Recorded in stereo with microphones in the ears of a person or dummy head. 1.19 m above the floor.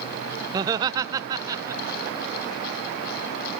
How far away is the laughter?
About 0.5 m.